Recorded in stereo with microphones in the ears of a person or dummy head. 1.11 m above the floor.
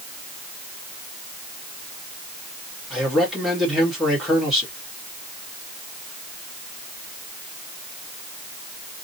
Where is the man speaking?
Centre (ahead or behind), 1.7 m.